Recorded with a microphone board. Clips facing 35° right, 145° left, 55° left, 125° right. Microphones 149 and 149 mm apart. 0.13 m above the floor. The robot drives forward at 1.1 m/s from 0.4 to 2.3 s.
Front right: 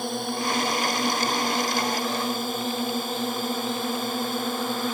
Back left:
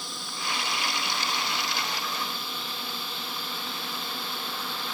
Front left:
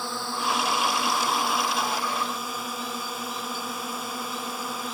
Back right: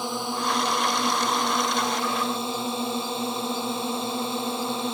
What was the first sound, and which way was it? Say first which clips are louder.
A drone: front right 11 dB, back right 3 dB; 55° right.